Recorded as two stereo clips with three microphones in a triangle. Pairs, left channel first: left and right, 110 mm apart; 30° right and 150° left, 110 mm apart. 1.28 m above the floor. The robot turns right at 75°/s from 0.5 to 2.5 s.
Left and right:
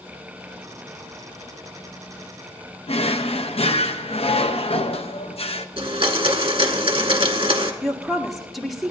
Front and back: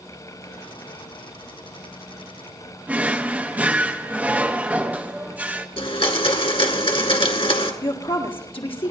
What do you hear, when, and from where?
2.9 s a drawer: 75° left, 0.7 m
5.8 s a blender: 55° right, 1.7 m
7.8 s a woman speaking: straight ahead, 1.8 m